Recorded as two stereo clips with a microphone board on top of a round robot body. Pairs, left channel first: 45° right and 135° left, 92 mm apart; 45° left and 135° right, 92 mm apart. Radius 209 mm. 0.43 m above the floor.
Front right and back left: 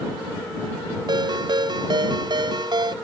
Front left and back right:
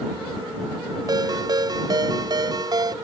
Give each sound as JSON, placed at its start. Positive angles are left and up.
{"t": 1.1, "sound": "a ringtone", "azimuth_deg": 175}